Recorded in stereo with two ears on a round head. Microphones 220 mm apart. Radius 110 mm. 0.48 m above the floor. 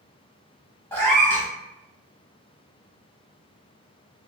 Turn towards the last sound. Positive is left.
turn(degrees=10)  # may be behind; listen again after turning